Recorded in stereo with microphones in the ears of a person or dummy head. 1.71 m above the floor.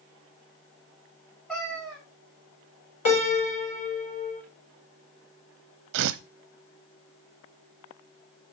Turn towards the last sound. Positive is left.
turn(degrees=-60)  # may be behind; listen again after turning